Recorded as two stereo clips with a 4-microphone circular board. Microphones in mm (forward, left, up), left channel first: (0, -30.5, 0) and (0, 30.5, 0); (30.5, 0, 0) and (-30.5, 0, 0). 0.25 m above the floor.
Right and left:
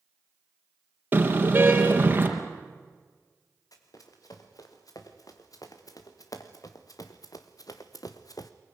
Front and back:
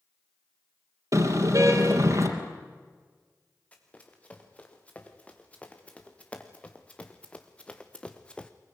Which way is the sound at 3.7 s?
70° right.